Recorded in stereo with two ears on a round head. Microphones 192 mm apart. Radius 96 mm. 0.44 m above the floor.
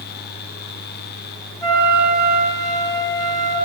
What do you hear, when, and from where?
1.6 s a flute: 15° left (ahead or behind), 2 m